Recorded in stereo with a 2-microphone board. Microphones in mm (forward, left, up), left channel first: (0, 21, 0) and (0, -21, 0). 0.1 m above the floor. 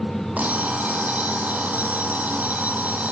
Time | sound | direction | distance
0.4 | an alarm clock | 35° right (ahead or behind) | 1.9 m